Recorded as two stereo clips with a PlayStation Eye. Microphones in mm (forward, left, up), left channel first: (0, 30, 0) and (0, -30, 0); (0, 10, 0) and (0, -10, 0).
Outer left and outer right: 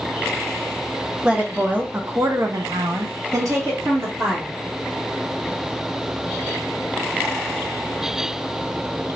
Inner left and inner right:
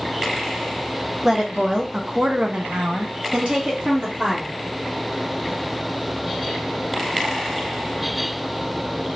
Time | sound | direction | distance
1.2 | a woman speaking | 15° right (ahead or behind) | 1.0 m